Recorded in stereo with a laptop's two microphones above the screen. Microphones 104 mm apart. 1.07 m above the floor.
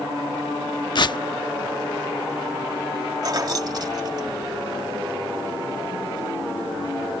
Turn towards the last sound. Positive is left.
turn(degrees=-40)  # may be behind; listen again after turning